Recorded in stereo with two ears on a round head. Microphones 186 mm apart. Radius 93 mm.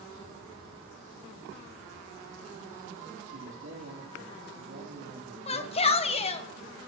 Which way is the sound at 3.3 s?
65° right (ahead or behind).